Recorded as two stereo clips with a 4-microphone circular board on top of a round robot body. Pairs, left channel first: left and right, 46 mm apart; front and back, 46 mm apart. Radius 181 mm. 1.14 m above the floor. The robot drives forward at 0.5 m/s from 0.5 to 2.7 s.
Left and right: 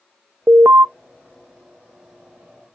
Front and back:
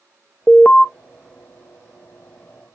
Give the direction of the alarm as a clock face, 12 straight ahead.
2 o'clock.